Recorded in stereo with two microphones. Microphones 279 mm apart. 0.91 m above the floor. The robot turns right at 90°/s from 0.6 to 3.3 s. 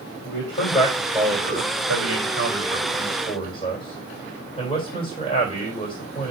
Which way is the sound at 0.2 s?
45° left (ahead or behind).